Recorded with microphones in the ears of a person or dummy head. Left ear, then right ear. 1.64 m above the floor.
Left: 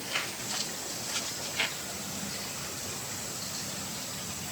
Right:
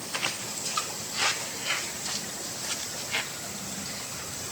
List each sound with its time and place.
Only background noise.